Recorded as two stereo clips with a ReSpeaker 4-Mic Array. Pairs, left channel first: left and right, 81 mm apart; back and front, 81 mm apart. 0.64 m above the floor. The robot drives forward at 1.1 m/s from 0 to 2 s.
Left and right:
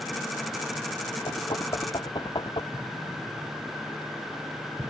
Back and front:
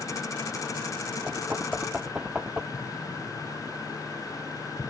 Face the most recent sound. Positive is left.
turn(degrees=-130)